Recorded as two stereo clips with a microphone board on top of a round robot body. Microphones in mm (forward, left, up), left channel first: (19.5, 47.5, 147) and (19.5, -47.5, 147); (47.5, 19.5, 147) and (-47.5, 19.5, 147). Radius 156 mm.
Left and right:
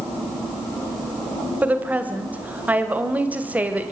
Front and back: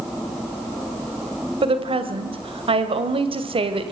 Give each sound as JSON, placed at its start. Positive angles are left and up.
{"t": 1.6, "sound": "a woman speaking", "azimuth_deg": -165, "distance_m": 2.5}